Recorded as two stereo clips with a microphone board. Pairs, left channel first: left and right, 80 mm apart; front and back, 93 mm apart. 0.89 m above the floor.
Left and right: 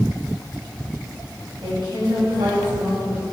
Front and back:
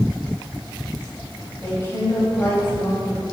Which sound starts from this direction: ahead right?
A woman speaking, at 1.6 s.